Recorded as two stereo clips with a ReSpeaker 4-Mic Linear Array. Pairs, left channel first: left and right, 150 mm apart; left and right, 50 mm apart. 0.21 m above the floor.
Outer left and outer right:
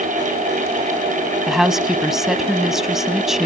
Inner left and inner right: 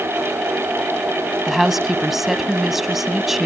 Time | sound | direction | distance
1.5 | a woman speaking | 5° right (ahead or behind) | 1.1 m